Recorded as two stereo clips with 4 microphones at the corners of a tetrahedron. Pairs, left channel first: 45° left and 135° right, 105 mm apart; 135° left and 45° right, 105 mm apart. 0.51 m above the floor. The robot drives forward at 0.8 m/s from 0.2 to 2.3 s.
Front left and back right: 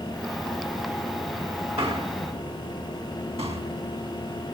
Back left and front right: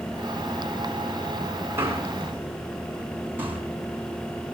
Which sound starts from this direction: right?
A man speaking, at 1.8 s.